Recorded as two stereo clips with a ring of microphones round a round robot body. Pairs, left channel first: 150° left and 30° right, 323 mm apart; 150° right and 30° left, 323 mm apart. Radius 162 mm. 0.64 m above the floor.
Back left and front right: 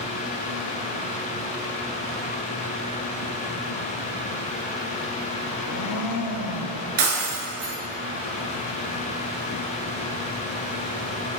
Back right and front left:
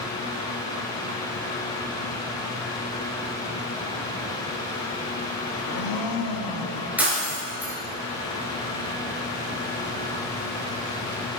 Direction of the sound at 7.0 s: 55° right.